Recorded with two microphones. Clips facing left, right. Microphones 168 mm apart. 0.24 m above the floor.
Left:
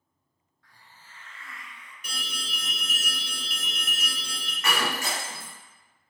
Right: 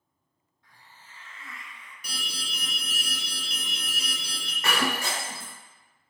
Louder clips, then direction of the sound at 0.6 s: Right 1 dB; 20° right (ahead or behind).